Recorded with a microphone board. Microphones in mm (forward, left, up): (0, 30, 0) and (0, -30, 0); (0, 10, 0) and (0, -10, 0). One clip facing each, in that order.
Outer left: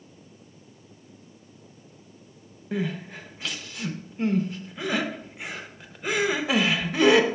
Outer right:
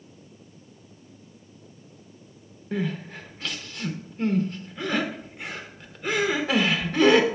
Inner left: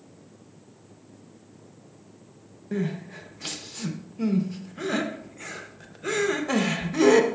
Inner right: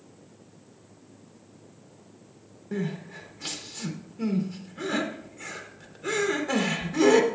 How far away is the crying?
About 0.7 m.